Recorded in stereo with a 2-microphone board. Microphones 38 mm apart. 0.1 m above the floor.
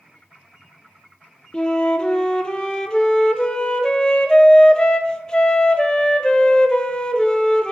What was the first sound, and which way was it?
A flute, 20° left (ahead or behind).